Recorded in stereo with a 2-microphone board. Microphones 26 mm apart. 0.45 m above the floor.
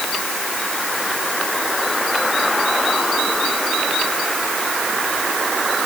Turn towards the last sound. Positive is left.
No sound to turn to.